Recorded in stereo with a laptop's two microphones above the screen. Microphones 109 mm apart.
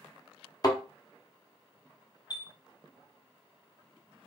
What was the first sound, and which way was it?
A thud, 35° left (ahead or behind).